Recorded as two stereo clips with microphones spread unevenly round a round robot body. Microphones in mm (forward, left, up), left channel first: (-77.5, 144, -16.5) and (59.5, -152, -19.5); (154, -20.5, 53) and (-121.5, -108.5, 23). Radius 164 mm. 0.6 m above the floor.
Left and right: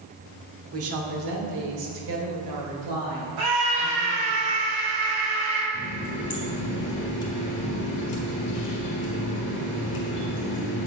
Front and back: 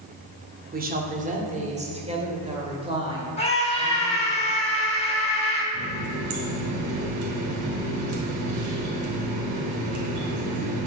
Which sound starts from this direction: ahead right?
A scream, at 3.4 s.